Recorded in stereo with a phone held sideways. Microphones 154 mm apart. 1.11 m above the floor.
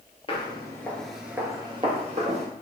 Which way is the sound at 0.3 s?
35° left (ahead or behind).